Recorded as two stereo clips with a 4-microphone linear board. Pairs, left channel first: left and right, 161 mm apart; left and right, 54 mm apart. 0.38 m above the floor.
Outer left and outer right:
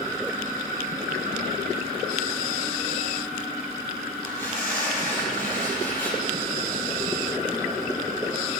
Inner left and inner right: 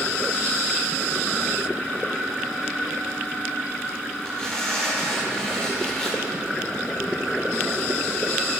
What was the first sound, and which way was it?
Tearing paper, 15° left (ahead or behind).